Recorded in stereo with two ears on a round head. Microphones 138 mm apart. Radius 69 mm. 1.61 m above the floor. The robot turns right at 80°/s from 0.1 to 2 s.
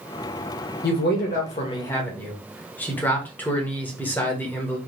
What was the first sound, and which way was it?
A man speaking, 75° left.